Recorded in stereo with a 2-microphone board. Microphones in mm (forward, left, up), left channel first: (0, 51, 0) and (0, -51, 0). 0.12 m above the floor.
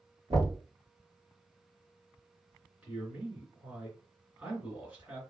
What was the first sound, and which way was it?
Knocking, 35° right (ahead or behind).